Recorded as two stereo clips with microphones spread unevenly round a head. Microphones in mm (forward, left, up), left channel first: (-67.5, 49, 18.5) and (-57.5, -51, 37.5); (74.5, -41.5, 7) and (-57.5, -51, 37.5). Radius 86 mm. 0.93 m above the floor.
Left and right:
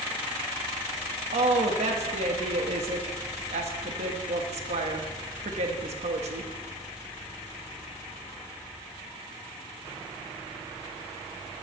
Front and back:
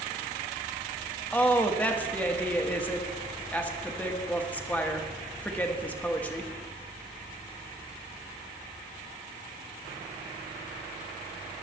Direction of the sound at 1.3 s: 65° right.